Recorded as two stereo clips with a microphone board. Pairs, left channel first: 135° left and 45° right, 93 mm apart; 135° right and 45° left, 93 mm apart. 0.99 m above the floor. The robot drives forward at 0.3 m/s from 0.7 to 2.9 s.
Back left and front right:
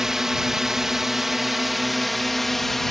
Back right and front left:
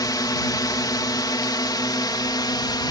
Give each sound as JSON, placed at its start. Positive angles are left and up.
{"t": 0.0, "sound": "a drone", "azimuth_deg": -130}